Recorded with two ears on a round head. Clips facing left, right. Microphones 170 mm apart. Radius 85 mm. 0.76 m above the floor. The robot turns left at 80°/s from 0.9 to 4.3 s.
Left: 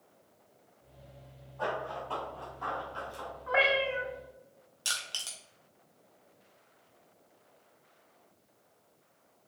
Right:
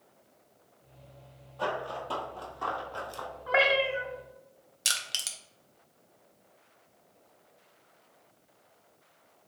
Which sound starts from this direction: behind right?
A cat meowing, at 3.5 s.